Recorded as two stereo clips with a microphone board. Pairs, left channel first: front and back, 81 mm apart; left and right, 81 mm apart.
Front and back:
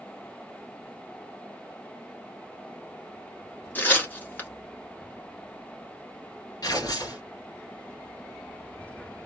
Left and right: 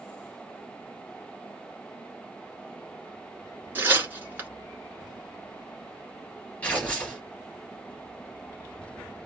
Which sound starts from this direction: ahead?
Tearing paper, at 6.6 s.